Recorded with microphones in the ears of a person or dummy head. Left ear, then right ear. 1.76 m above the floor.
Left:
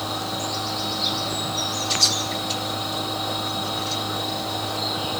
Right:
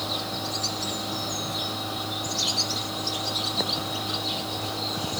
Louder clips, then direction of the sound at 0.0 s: Left 2 dB; 15° left (ahead or behind).